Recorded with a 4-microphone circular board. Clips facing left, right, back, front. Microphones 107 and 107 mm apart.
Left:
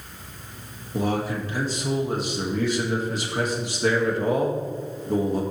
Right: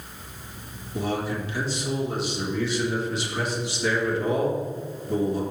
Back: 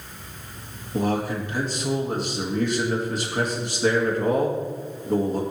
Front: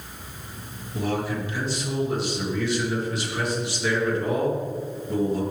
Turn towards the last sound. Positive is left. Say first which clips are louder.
# left 2 dB, back 3 dB
turn(degrees=135)